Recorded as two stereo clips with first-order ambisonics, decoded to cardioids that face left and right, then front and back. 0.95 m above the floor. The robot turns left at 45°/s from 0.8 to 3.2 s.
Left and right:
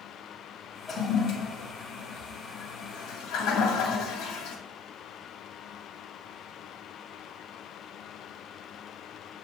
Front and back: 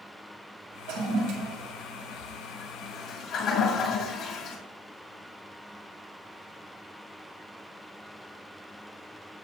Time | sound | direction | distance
0.9 | a toilet flushing | 165° left | 1.4 m